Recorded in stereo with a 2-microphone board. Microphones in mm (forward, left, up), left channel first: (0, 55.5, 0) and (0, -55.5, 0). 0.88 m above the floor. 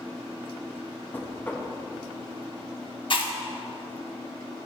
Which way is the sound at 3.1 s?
50° left (ahead or behind).